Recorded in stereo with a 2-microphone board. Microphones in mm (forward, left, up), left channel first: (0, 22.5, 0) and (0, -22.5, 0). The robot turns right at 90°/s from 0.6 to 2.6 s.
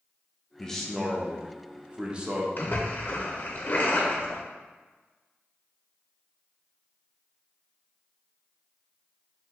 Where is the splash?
55° left (ahead or behind), 0.7 m; by 4.4 s 50° left (ahead or behind), 0.7 m.